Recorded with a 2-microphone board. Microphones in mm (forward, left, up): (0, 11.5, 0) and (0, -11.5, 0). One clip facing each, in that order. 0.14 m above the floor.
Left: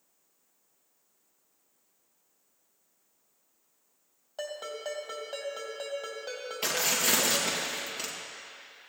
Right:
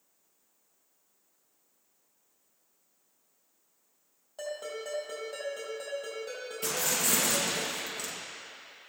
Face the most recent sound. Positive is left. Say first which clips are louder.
# left 3 dB
turn(degrees=35)  # may be behind; listen again after turning